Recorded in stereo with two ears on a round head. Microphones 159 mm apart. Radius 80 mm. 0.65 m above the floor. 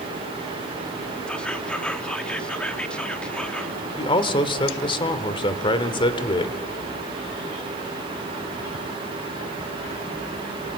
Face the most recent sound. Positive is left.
turn(degrees=30)  # may be behind; listen again after turning